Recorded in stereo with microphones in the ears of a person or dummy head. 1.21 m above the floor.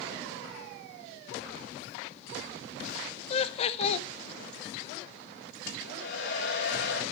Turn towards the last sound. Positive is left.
turn(degrees=60)  # may be behind; listen again after turning